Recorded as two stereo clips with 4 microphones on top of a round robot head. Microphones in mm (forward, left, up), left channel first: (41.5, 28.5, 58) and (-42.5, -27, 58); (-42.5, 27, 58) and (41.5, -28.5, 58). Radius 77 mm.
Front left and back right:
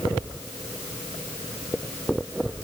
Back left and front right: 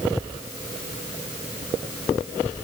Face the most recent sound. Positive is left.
No sound to turn to.